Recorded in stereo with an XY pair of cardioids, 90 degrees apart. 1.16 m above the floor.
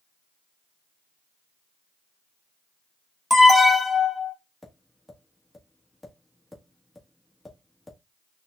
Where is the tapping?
10° left, 1.4 m.